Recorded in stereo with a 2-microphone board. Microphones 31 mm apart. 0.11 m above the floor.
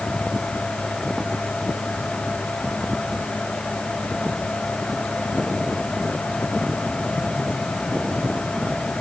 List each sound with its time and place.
Only background noise.